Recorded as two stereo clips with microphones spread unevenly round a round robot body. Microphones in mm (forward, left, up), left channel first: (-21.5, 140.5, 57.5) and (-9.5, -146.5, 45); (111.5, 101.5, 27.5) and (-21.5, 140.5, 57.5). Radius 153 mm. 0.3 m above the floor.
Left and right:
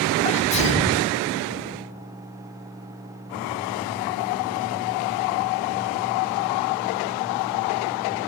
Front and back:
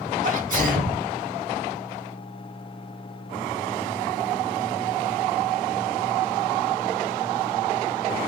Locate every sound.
0.2 s a sneeze: 155° left, 1.5 m